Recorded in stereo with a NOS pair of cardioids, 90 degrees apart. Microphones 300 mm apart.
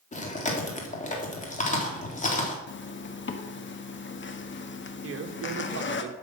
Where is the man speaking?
45° right, 2 m.